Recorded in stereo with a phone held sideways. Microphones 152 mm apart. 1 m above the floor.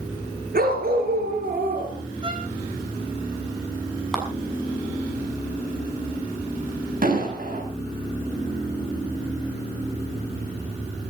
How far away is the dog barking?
About 4 m.